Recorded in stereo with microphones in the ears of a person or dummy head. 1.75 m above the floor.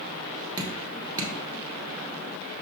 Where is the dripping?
20° right (ahead or behind), 1.7 m.